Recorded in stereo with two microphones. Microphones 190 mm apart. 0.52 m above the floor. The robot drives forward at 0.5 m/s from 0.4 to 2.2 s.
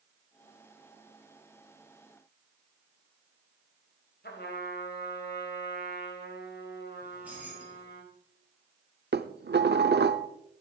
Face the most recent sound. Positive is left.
turn(degrees=-60)  # may be behind; listen again after turning